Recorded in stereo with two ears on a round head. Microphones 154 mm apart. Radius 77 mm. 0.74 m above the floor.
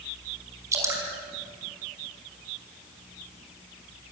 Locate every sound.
0.7 s dripping: 20° right (ahead or behind), 5 m